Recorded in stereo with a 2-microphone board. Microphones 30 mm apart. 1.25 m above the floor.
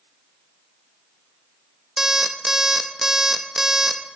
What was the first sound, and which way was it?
An alarm clock, 10° right (ahead or behind).